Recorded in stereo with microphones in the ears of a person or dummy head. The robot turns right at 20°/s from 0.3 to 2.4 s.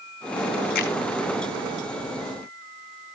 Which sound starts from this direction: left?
A finger snap, at 0.8 s.